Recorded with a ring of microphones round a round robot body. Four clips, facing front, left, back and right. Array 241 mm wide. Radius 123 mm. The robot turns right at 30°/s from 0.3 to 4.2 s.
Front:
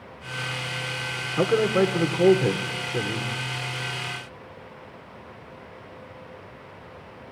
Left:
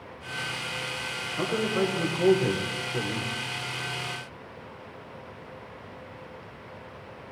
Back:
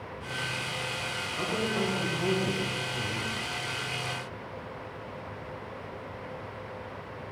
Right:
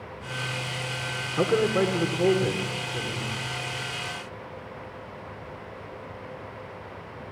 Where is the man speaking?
35° right, 2 m; by 3.4 s 25° left, 2 m.